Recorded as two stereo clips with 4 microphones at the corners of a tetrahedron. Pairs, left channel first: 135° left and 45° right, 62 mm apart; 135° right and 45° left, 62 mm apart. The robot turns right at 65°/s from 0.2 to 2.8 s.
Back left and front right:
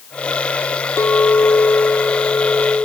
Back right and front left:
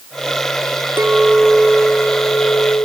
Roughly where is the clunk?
No clunk in this recording.